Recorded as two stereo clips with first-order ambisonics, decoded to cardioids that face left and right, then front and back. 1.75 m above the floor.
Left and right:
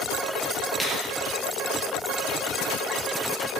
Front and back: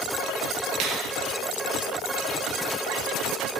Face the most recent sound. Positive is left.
turn(degrees=175)